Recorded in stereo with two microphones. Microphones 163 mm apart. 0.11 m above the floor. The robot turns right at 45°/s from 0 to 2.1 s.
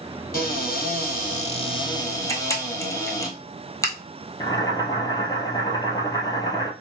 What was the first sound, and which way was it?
A cupboard door, 80° left.